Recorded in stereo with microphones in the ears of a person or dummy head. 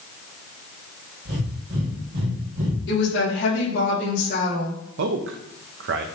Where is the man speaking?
60° right (ahead or behind), 0.7 m.